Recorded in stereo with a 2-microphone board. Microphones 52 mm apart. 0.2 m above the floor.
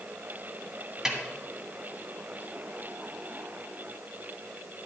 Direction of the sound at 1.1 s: 10° right (ahead or behind).